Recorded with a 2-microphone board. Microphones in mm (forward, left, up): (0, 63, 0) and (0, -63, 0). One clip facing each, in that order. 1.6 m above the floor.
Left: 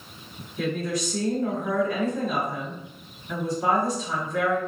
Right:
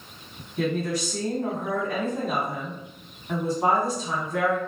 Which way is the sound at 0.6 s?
65° right (ahead or behind).